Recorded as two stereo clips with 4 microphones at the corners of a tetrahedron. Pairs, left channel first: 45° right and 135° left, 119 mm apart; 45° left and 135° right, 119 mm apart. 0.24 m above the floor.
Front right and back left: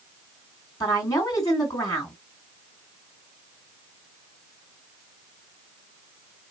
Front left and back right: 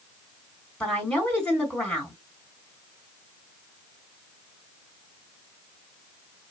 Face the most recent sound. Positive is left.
turn(degrees=-25)